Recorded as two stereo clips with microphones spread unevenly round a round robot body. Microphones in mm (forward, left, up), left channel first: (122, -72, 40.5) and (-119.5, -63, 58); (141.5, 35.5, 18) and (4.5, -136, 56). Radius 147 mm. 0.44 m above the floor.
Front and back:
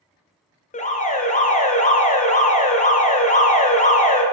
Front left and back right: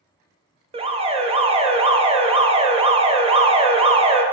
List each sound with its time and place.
0.7 s an alarm: 60° right, 1.0 m